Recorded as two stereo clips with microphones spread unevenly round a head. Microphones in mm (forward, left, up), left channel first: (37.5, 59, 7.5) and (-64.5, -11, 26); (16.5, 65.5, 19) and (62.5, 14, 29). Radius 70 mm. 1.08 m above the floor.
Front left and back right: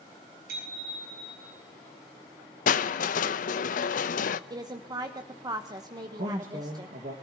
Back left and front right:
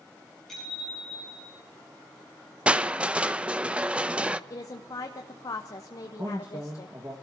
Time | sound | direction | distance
0.5 | a bicycle bell | 140° right | 8 m
2.7 | crushing | 30° left | 0.7 m
4.5 | a woman speaking | 155° left | 1.0 m
6.2 | a man speaking | 115° right | 1.7 m